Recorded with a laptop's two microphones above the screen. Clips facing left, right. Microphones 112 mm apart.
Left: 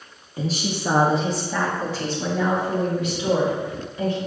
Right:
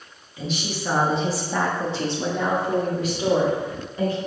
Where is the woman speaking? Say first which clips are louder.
Left 3 dB; 40° left (ahead or behind), 0.9 m; by 4.2 s 45° right (ahead or behind), 3 m.